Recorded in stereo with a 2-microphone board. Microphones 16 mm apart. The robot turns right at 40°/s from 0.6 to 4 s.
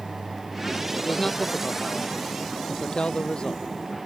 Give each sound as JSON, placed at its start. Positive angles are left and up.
{"t": 1.0, "sound": "a man speaking", "azimuth_deg": 20}